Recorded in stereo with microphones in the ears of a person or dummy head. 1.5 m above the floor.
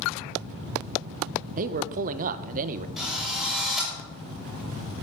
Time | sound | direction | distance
1.6 | a man speaking | 45° right (ahead or behind) | 0.9 m
3.0 | a drill | 5° left (ahead or behind) | 6 m